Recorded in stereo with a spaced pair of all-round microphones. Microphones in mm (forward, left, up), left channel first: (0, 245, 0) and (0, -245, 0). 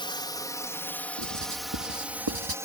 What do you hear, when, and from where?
0.0 s a drone: 10° left (ahead or behind); by 2.6 s 5° right (ahead or behind)
1.2 s writing: 45° right (ahead or behind)